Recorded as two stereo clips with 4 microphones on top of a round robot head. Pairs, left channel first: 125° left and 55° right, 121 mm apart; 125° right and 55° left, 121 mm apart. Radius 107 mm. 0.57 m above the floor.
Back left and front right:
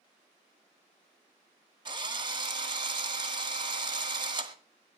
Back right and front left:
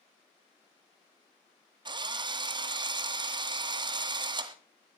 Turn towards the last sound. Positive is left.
turn(degrees=0)